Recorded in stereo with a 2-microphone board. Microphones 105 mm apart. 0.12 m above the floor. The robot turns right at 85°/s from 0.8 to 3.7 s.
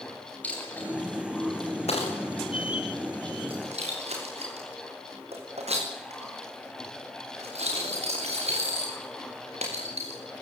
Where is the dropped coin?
15° left (ahead or behind), 8.5 m; by 10.2 s 80° right, 8.5 m.